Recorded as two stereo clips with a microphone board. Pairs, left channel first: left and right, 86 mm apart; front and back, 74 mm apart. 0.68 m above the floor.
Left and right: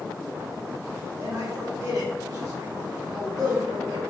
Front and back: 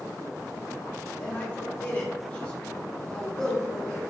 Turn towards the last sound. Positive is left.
turn(degrees=-70)